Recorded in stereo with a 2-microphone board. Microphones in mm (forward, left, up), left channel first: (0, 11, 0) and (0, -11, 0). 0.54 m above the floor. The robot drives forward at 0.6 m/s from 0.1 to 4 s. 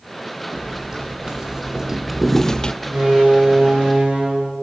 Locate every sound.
0.5 s footsteps: 30° right (ahead or behind), 2.5 m; by 2.7 s 40° left (ahead or behind), 0.6 m
2.8 s a door slam: 85° right, 7 m